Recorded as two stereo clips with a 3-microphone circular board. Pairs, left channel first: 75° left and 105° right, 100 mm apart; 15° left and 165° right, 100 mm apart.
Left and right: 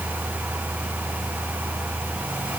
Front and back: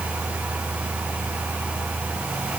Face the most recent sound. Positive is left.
No sound to turn to.